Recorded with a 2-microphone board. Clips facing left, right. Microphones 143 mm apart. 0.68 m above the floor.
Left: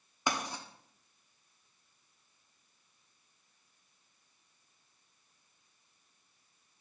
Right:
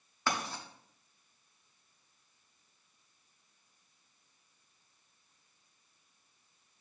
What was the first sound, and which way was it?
Writing, 15° left (ahead or behind).